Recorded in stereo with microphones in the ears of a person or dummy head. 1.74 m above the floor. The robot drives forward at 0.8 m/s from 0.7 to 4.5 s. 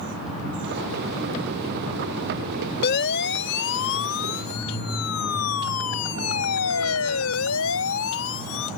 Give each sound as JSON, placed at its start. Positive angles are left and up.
{"t": 2.8, "sound": "a siren", "side_deg": 55}